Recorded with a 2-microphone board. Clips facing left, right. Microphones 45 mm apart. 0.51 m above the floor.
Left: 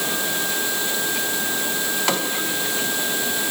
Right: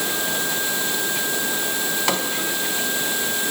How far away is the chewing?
No chewing in this recording.